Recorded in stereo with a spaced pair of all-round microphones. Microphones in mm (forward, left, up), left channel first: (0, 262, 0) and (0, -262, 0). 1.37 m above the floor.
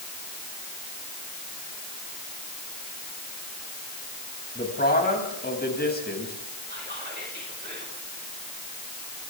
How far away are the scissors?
No scissors in this recording.